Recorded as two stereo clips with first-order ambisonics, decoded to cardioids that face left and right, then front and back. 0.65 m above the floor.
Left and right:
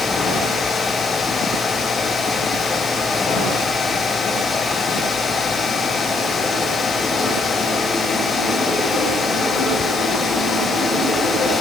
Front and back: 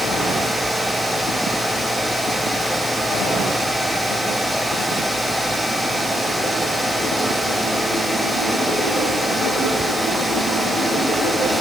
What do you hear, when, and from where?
Only background noise.